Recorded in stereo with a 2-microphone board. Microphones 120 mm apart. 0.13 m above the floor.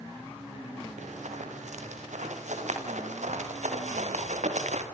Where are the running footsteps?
85° right, 8 m.